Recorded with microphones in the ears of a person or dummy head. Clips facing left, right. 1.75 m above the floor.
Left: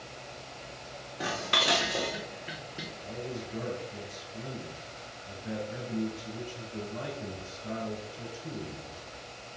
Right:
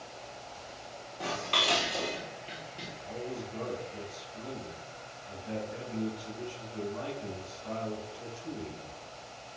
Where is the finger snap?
No finger snap in this recording.